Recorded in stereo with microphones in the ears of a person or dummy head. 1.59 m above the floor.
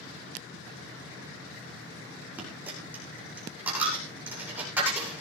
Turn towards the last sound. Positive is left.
turn(degrees=-10)  # may be behind; listen again after turning